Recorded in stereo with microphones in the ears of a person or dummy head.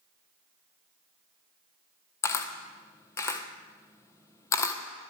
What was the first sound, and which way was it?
A camera shutter, 15° left (ahead or behind).